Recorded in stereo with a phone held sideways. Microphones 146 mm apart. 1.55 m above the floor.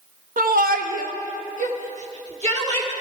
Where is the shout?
70° right (ahead or behind), 0.7 m; by 2.9 s 45° right (ahead or behind), 2.0 m.